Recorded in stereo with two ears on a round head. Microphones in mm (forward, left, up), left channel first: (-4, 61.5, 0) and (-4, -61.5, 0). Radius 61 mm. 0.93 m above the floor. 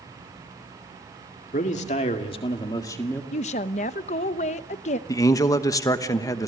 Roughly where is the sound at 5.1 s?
Left.